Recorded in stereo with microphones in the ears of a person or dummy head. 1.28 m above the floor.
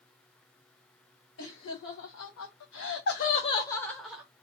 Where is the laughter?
70° left (ahead or behind), 1.3 m; by 4.2 s 5° right (ahead or behind), 0.8 m.